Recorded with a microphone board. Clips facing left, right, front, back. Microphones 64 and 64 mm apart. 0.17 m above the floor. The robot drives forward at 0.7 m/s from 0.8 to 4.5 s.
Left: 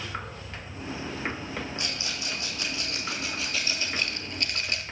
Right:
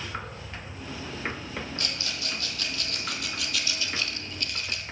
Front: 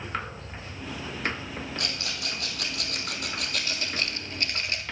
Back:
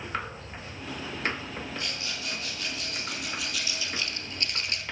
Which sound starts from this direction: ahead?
A rattle, at 1.8 s.